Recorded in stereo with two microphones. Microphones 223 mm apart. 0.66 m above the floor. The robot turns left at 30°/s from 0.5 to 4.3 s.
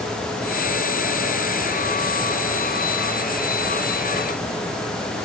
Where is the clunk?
No clunk in this recording.